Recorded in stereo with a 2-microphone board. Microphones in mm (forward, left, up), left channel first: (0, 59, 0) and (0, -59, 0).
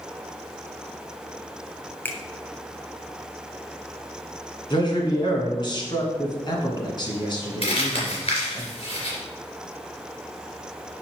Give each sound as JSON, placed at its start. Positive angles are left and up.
{"t": 2.0, "sound": "a finger snap", "side_deg": 15, "distance_m": 0.9}
{"t": 4.7, "sound": "a man speaking", "side_deg": 40, "distance_m": 2.0}
{"t": 7.6, "sound": "crumpling", "side_deg": 55, "distance_m": 3.0}